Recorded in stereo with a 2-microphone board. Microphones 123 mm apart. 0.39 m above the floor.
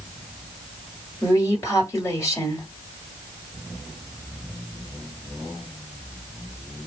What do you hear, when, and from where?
1.2 s a woman speaking: 25° left (ahead or behind), 1.8 m